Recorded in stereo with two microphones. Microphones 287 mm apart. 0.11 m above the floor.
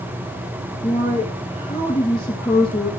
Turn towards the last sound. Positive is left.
turn(degrees=20)  # may be behind; listen again after turning